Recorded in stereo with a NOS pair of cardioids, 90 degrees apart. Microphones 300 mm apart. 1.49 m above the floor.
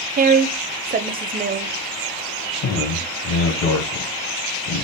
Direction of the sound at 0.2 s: 30° right.